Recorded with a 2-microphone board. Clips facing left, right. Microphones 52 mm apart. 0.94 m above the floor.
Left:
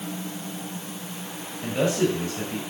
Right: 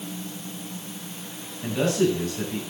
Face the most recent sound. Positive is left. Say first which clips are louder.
# right 1 dB
turn(degrees=30)  # may be behind; listen again after turning